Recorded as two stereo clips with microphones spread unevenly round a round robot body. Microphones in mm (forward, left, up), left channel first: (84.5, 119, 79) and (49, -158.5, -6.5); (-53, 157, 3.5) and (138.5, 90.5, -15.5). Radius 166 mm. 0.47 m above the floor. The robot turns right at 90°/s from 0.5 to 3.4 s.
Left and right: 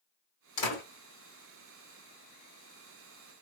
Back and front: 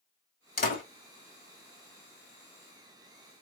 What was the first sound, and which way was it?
A door slam, 120° left.